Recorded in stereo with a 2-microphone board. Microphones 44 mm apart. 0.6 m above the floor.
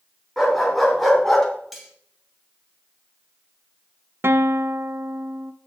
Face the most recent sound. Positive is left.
turn(degrees=-60)  # may be behind; listen again after turning